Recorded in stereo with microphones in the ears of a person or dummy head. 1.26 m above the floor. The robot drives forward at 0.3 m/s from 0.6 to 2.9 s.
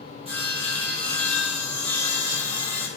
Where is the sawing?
30° right (ahead or behind), 1.7 m; by 2.9 s 20° right (ahead or behind), 2.5 m.